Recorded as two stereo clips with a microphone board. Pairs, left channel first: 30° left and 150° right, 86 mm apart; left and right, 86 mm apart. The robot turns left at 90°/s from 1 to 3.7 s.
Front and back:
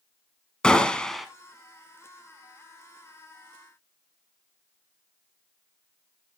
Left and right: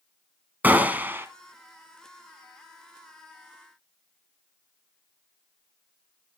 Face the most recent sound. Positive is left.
turn(degrees=75)